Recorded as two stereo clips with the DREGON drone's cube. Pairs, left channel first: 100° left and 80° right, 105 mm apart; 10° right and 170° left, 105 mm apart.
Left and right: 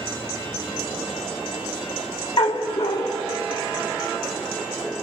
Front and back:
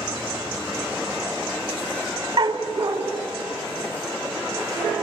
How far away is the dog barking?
About 2.5 m.